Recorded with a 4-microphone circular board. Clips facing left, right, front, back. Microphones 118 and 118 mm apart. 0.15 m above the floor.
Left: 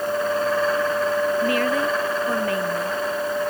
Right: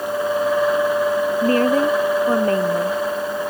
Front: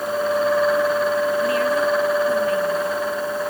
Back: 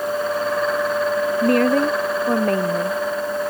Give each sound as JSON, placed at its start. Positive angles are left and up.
{"t": 1.4, "sound": "a woman speaking", "azimuth_deg": -145}